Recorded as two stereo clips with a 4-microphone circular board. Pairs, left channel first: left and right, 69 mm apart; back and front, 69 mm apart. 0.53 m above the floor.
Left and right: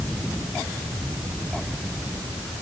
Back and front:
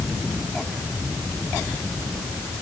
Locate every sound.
Only background noise.